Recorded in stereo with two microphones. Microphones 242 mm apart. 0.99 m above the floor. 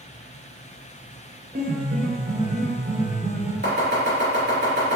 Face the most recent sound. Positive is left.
turn(degrees=-45)  # may be behind; listen again after turning